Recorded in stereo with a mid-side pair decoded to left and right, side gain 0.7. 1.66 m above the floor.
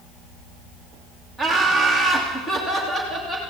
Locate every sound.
1.4 s laughter: 5° left, 1.5 m; by 3.5 s 15° left, 2.5 m